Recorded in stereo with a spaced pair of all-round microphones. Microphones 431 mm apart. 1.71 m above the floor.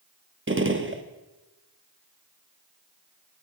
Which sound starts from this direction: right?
A gunshot, at 0.5 s.